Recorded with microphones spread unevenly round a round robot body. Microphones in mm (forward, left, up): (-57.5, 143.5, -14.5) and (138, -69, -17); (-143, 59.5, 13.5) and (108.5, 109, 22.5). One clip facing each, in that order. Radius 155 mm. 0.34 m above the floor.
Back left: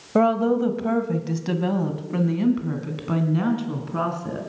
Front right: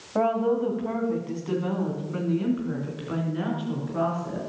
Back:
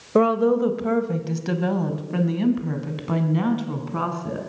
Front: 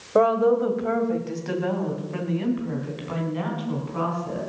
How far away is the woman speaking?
About 1.7 m.